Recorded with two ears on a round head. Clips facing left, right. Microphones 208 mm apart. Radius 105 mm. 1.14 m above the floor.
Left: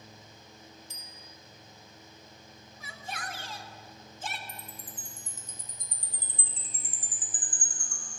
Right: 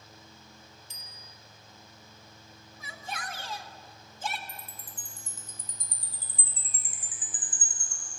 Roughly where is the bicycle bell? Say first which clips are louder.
Left 2 dB; right.